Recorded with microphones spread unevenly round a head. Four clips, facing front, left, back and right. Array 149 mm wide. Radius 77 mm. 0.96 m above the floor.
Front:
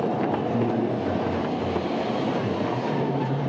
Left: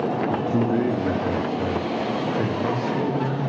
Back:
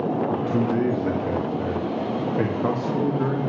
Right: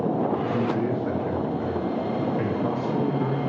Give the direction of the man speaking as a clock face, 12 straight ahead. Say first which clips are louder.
Left 3 dB, back 1 dB; 8 o'clock.